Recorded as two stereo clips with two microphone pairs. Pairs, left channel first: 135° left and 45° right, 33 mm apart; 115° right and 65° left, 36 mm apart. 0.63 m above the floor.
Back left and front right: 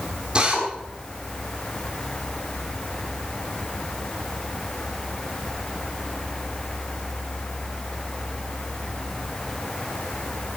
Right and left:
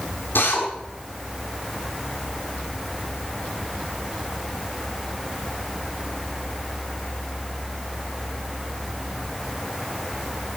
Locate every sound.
0.3 s a drill: 110° right, 6.5 m